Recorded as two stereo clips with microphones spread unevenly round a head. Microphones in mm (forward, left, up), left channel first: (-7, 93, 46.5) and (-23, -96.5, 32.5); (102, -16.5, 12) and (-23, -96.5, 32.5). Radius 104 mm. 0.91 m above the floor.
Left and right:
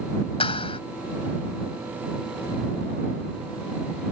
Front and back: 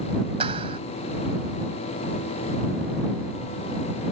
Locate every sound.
0.4 s a clap: 145° left